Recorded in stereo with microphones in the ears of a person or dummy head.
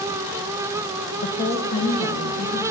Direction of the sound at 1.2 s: 40° left (ahead or behind).